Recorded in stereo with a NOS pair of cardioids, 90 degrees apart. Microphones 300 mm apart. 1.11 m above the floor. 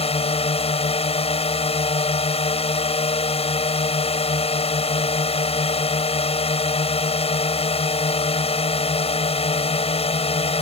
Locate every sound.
0.0 s a drone: 20° left